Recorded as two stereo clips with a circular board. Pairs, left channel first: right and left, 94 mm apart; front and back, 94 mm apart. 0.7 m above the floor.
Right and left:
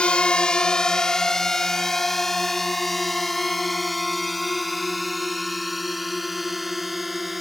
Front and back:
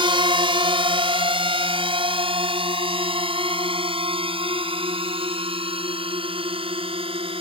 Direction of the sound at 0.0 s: 165° right.